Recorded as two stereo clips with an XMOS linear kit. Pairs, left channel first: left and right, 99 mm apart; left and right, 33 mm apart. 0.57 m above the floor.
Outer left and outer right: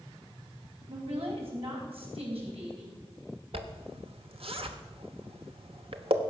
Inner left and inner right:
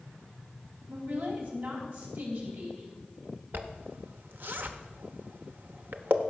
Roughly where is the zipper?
Right.